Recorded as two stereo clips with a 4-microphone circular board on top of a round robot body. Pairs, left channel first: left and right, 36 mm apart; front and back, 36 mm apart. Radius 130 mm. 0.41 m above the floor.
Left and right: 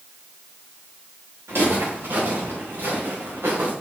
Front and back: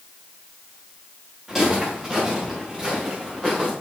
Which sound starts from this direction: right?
Footsteps, at 1.5 s.